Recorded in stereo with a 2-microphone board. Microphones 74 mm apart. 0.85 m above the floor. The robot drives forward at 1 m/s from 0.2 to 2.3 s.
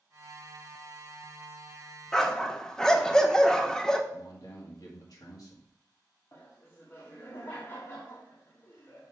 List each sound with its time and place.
2.1 s a dog barking: 5° left (ahead or behind), 0.8 m; by 4.0 s 10° left (ahead or behind), 0.6 m
4.1 s a man speaking: 55° left (ahead or behind), 1.8 m
6.3 s laughter: 45° left (ahead or behind), 1.4 m